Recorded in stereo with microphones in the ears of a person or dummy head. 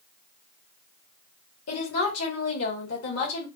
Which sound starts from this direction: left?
A woman speaking, at 1.7 s.